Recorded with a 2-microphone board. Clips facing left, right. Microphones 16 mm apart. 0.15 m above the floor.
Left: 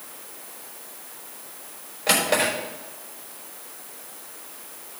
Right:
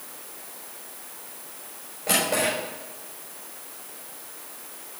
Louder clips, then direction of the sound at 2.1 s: Left 2 dB; 75° left (ahead or behind).